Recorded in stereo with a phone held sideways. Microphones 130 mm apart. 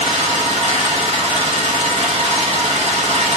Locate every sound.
0.0 s an engine running: 55° right (ahead or behind), 0.8 m